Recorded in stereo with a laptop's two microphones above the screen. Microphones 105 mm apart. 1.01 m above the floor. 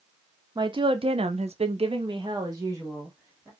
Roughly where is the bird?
I don't hear a bird.